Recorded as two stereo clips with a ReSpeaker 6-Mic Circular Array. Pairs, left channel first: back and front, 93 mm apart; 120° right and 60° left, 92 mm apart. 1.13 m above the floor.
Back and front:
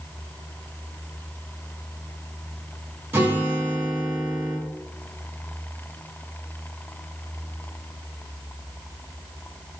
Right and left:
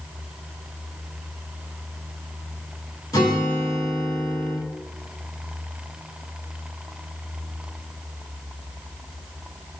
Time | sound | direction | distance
3.1 | a guitar | 70° right | 1.2 m